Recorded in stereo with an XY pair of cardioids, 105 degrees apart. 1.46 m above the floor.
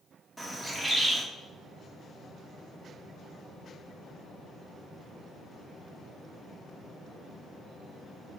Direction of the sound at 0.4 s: 5° right.